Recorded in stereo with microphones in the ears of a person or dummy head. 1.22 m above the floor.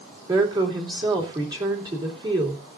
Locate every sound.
0.3 s a woman speaking: 25° right (ahead or behind), 2.5 m